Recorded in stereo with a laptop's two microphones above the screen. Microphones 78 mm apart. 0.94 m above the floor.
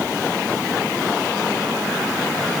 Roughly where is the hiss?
I don't hear a hiss.